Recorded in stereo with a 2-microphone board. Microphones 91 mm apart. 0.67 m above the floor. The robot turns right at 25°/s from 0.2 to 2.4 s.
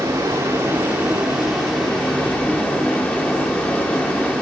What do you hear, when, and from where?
0.0 s running water: 35° right, 1.2 m; by 4.4 s 20° left, 1.2 m